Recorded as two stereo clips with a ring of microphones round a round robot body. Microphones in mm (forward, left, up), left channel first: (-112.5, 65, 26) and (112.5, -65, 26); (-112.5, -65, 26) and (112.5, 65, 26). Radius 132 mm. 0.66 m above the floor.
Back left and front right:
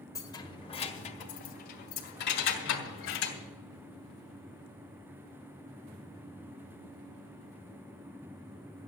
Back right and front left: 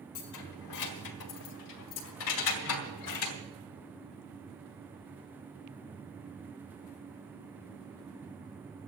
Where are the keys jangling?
130° right, 1.8 m; by 3.4 s 170° right, 3 m.